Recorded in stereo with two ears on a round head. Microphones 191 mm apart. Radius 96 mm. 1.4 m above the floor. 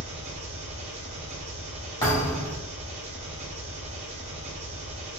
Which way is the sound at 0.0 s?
30° right (ahead or behind).